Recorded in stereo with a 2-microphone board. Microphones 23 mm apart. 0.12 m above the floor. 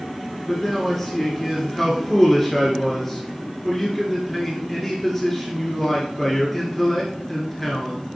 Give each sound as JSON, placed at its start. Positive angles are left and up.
{"t": 0.5, "sound": "a man speaking", "side_deg": 10, "distance_m": 2.0}